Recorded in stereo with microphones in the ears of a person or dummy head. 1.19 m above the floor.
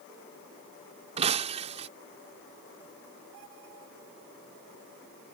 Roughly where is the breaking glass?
Right.